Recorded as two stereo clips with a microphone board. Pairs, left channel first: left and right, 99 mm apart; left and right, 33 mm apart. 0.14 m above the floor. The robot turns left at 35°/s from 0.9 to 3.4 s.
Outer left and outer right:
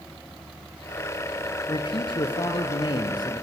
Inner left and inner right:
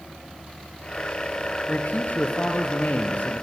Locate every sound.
1.7 s a man speaking: 115° left, 2.5 m; by 3.4 s 55° left, 2.5 m